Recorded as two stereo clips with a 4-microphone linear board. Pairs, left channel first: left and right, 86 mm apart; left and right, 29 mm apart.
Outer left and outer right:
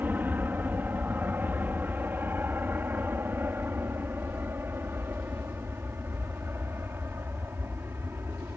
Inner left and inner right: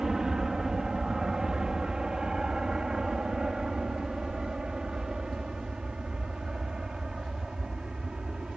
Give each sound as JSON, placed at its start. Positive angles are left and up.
{"t": 0.0, "sound": "an aircraft", "side_deg": -20}